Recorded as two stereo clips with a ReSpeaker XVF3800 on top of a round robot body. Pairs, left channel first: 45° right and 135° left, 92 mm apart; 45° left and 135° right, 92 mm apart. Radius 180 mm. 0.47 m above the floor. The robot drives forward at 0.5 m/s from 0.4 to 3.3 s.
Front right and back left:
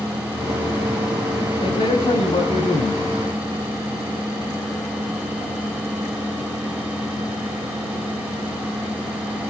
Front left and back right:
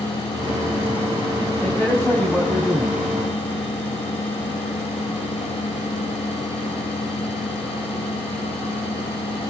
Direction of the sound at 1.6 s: 35° right.